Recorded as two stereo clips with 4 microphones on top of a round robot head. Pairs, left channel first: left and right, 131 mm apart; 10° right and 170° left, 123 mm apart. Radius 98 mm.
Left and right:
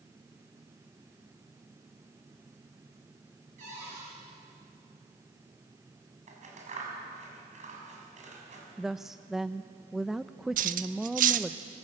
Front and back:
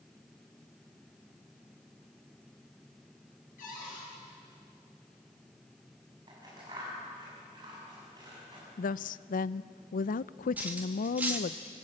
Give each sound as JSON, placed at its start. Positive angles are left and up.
{"t": 3.6, "sound": "a cupboard door", "azimuth_deg": -40, "distance_m": 9.0}
{"t": 6.3, "sound": "scissors", "azimuth_deg": -120, "distance_m": 6.5}
{"t": 8.8, "sound": "a woman speaking", "azimuth_deg": 0, "distance_m": 0.5}
{"t": 10.6, "sound": "cutlery clinking", "azimuth_deg": -105, "distance_m": 1.1}